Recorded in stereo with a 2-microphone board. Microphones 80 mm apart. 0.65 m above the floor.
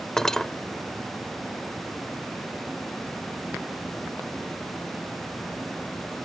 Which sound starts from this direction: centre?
Cutlery clinking, at 0.2 s.